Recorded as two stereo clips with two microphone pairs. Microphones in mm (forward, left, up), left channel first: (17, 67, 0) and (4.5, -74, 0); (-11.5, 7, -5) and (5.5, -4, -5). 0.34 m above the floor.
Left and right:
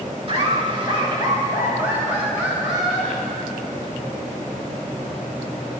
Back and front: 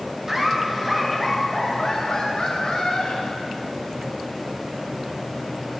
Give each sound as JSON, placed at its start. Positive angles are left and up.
{"t": 0.3, "sound": "laughter", "azimuth_deg": -85, "distance_m": 1.3}